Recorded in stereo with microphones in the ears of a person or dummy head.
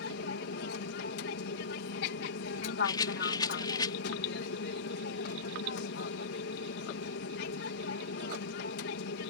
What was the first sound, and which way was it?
An aircraft, 60° left (ahead or behind).